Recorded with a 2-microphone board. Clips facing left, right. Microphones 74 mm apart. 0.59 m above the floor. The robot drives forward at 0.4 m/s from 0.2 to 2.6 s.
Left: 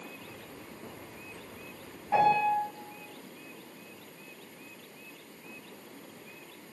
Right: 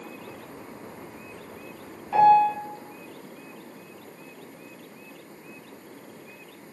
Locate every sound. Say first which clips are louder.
2.1 s a piano: right 8 dB; 65° left (ahead or behind), 1.9 m